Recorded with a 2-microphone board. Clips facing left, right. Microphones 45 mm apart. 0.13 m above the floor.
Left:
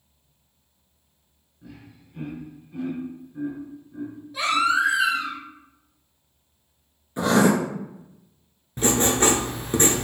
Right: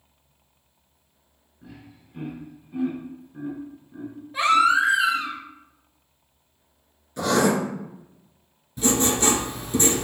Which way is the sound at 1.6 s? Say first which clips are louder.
Even; 20° right (ahead or behind).